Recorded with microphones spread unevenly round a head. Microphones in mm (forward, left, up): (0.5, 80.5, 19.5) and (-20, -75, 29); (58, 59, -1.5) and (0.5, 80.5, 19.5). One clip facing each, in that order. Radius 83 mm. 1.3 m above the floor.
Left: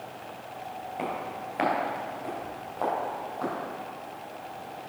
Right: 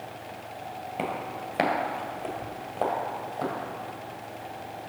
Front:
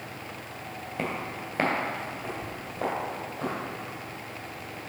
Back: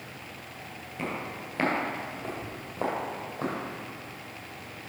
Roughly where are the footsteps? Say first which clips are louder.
Right 1 dB, front 2 dB; ahead right.